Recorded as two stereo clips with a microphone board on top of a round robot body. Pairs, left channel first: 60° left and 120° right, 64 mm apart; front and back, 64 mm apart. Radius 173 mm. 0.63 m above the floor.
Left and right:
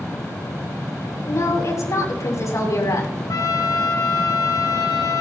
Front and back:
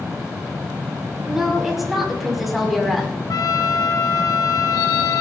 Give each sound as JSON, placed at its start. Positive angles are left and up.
{"t": 1.2, "sound": "a woman speaking", "azimuth_deg": 95, "distance_m": 6.5}
{"t": 3.3, "sound": "a trumpet", "azimuth_deg": 25, "distance_m": 1.2}